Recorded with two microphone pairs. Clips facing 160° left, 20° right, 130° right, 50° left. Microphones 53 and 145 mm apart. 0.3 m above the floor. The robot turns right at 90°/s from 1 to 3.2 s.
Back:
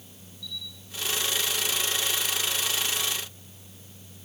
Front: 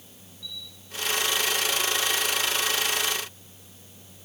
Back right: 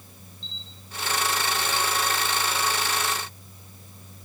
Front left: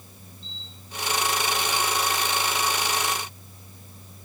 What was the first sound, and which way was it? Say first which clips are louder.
A camera shutter: back 2 dB, even; 170° left.